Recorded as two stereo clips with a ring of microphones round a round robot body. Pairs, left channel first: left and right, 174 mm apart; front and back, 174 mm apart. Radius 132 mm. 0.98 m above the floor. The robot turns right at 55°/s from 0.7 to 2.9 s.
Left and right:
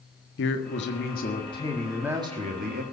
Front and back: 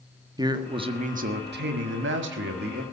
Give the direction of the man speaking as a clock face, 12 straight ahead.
8 o'clock.